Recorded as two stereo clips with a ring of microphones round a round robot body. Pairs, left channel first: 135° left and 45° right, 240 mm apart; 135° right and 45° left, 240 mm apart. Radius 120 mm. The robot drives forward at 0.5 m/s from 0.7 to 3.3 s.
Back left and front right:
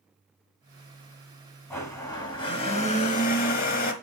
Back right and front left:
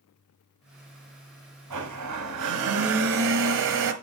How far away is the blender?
About 1.9 m.